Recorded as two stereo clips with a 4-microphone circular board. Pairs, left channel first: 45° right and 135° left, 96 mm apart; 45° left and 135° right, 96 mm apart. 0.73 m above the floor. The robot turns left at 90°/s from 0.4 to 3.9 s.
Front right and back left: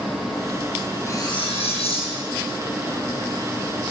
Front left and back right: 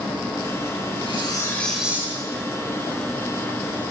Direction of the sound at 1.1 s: 15° left.